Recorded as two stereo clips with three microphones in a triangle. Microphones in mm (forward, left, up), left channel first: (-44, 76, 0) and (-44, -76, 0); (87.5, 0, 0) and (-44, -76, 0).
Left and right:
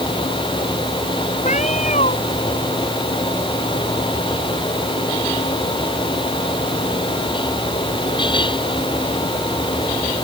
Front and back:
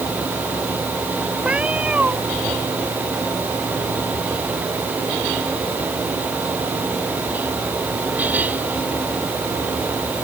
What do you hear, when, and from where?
1.4 s a cat meowing: 130° left